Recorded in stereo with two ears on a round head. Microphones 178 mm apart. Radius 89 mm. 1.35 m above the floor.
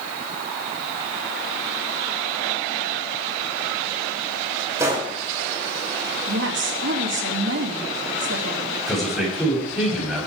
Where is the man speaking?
Centre (ahead or behind), 7.5 m.